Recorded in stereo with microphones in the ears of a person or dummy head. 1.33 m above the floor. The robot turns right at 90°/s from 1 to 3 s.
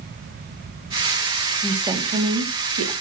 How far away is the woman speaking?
About 0.8 m.